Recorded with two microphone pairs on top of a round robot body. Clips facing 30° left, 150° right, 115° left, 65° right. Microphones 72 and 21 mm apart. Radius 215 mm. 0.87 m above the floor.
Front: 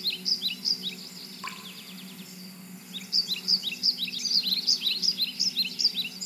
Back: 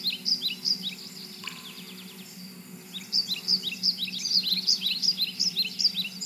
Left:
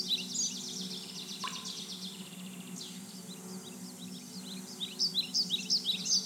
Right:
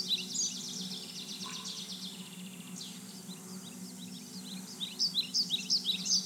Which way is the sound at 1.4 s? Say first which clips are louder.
Front 5 dB, left 6 dB; 90° left.